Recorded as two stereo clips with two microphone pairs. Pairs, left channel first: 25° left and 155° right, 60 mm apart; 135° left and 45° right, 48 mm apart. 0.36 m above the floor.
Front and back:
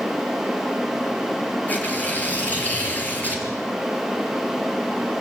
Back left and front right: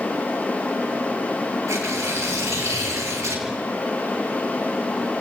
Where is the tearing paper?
35° right, 6 m.